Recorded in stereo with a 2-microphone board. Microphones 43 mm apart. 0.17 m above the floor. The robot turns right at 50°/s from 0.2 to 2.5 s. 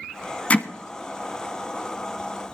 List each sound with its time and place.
0.5 s hammering: 35° left (ahead or behind), 0.8 m